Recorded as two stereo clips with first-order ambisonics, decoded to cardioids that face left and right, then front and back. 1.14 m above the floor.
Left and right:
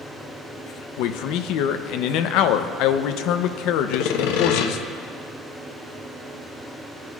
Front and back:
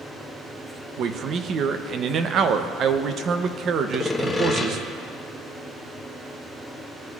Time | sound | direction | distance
1.0 | a man speaking | 125° left | 0.6 m
3.9 | sawing | 85° left | 1.0 m